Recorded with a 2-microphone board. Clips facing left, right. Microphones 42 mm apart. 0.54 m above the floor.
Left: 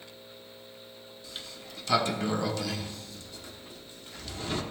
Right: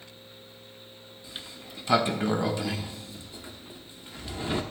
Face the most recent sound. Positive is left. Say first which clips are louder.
# right 1 dB
turn(degrees=-20)  # may be behind; listen again after turning